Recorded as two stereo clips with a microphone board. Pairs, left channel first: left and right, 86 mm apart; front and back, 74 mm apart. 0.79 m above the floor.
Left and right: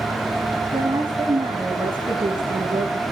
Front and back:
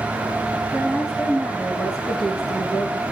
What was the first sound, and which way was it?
A woman speaking, 100° right.